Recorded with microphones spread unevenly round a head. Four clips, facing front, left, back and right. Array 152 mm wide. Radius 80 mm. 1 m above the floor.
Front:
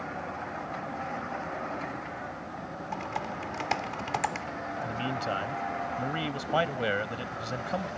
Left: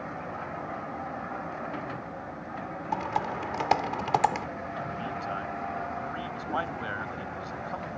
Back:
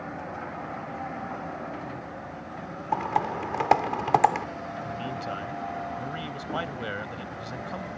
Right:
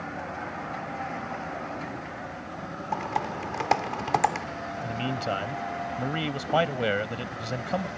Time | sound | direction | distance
2.9 | typing on a keyboard | 175° right | ?
4.8 | a man speaking | 65° right | ?